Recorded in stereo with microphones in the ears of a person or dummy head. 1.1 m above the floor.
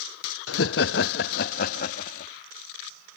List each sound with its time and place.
0.5 s laughter: 70° left (ahead or behind); by 2.3 s 45° left (ahead or behind)